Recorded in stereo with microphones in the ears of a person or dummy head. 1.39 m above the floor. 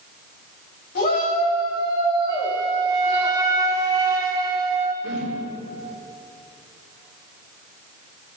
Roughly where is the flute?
Centre.